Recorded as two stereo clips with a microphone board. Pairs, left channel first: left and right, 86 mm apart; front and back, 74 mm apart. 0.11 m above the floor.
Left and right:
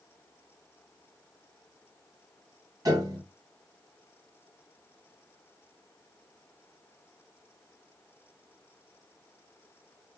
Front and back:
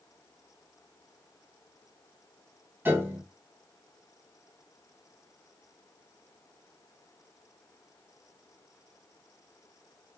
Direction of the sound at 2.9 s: 125° right.